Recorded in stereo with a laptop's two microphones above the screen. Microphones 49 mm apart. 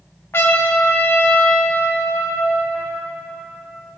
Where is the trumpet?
55° left (ahead or behind), 0.7 m.